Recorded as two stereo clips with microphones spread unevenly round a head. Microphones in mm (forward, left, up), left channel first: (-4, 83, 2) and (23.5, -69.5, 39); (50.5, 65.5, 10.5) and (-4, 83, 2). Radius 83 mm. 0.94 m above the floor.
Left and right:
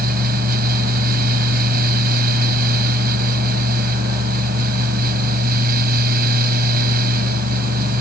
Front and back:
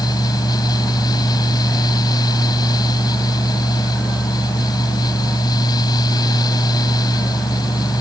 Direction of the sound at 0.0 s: 45° right.